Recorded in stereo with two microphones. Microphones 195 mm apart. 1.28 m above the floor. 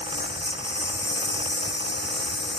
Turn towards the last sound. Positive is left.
turn(degrees=65)  # may be behind; listen again after turning